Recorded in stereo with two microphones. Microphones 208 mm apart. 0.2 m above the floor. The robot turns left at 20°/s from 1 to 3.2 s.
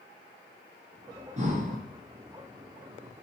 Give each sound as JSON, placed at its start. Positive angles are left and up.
{"t": 1.4, "sound": "breathing", "side_deg": -35, "distance_m": 1.2}